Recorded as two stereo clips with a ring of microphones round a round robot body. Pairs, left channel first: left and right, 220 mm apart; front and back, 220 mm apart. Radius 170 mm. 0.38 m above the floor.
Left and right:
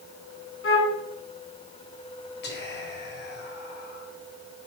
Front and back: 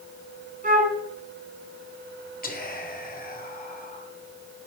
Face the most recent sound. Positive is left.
turn(degrees=50)